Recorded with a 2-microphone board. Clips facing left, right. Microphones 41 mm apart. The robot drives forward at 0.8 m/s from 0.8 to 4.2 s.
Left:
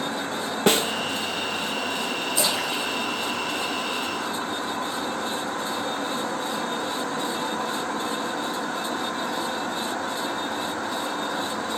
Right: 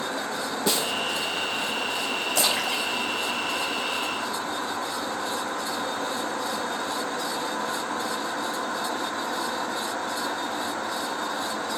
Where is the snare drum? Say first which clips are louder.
Left 6 dB; 50° left (ahead or behind), 0.6 m; by 0.9 s 45° left (ahead or behind), 0.7 m.